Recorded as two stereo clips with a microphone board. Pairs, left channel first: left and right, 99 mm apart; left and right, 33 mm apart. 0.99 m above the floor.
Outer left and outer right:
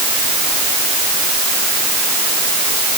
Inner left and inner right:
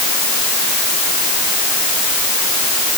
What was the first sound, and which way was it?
Only background noise.